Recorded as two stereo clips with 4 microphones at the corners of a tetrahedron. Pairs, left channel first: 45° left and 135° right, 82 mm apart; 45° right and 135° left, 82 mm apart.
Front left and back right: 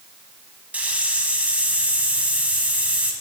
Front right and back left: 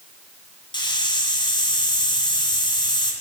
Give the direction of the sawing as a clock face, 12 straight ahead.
I don't hear sawing.